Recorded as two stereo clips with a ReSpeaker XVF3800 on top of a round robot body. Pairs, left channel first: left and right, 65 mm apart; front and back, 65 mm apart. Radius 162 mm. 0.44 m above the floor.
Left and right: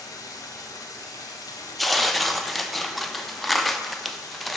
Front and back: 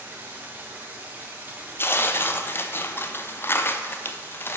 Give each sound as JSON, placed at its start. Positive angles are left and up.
{"t": 0.0, "sound": "running water", "azimuth_deg": 115, "distance_m": 0.9}
{"t": 1.8, "sound": "tearing paper", "azimuth_deg": 5, "distance_m": 0.7}